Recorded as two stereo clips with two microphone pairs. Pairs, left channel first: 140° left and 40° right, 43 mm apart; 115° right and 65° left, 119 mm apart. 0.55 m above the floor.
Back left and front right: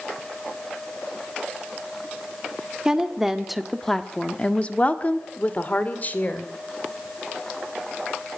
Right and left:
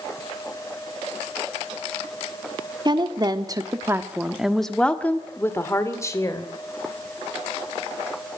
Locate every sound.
2.9 s a woman speaking: 30° left, 1.7 m; by 6.5 s 175° right, 3 m